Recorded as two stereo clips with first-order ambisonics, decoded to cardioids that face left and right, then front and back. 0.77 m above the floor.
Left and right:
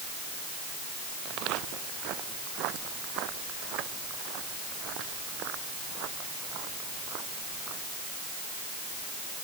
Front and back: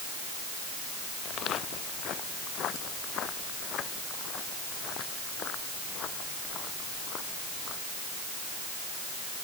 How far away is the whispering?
I don't hear whispering.